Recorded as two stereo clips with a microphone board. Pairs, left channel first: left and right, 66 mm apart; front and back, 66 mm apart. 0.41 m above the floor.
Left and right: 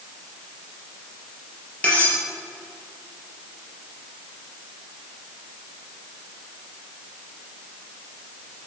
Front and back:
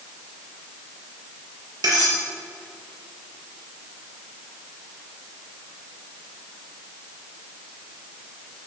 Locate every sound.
1.8 s cutlery clinking: 160° left, 5 m